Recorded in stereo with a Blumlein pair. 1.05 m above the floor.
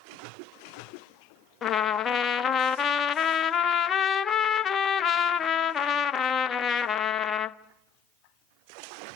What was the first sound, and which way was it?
A trumpet, 25° left.